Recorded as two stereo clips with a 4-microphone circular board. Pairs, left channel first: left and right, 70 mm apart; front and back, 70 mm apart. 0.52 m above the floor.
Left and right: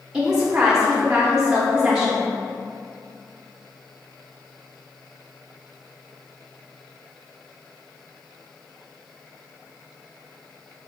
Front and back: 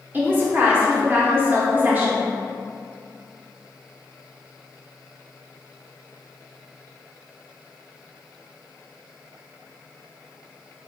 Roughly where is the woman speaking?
Behind.